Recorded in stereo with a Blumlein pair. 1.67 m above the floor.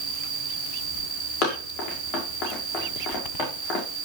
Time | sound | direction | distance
0.0 | an insect | 15° right | 3.5 m
1.4 | running footsteps | 30° left | 6 m